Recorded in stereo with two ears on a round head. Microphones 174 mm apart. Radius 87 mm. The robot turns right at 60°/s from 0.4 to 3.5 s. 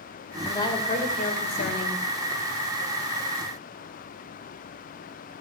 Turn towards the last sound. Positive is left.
turn(degrees=-155)